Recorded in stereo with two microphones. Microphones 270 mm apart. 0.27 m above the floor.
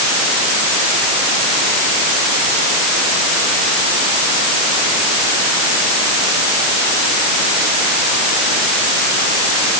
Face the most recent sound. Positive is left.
No sound to turn to.